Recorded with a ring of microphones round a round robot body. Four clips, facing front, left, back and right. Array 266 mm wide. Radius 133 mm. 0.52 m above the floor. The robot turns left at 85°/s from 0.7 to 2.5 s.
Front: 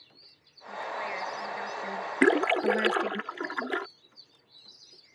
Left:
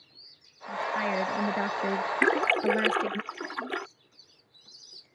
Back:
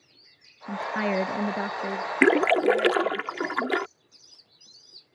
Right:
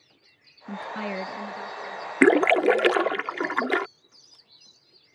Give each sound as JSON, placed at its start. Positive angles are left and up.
{"t": 0.7, "sound": "a woman speaking", "azimuth_deg": -140}
{"t": 2.2, "sound": "a splash", "azimuth_deg": -100}